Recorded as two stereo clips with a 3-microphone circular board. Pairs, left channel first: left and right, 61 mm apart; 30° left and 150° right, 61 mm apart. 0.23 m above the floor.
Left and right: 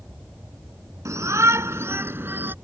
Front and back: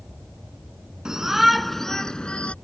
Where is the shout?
70° right; by 2.5 s 35° right.